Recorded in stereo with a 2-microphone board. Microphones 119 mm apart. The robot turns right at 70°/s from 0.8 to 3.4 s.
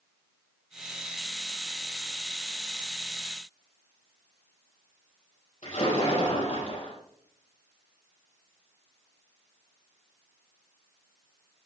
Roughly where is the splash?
Left.